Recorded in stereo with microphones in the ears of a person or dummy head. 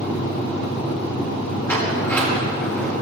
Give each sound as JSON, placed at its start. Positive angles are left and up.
{"t": 1.7, "sound": "a sliding door", "side_deg": 10, "distance_m": 1.5}